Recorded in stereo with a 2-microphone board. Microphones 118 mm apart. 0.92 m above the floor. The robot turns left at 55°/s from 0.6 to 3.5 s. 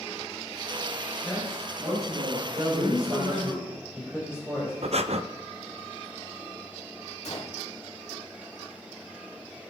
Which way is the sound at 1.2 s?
5° left.